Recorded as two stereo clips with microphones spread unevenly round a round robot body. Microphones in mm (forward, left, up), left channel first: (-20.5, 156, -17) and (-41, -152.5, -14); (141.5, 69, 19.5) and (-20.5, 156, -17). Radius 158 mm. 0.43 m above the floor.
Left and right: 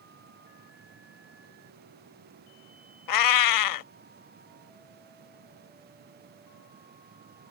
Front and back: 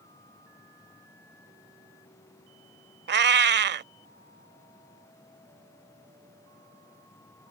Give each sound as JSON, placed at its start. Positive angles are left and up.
{"t": 3.1, "sound": "a cat meowing", "azimuth_deg": 115}